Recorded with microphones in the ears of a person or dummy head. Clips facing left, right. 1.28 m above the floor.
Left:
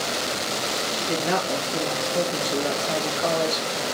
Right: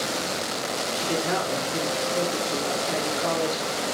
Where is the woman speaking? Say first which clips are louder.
Left 1 dB; 70° left (ahead or behind), 1.5 m.